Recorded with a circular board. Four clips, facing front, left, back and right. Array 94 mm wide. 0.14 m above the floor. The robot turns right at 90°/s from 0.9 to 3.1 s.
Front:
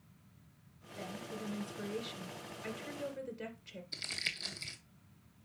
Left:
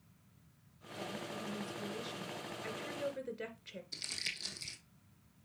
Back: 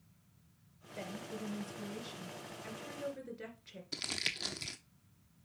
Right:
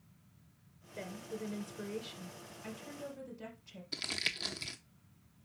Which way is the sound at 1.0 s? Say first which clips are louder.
Even, even; 95° right.